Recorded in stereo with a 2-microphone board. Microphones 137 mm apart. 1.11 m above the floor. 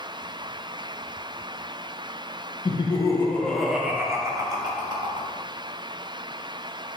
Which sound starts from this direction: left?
Laughter, at 2.6 s.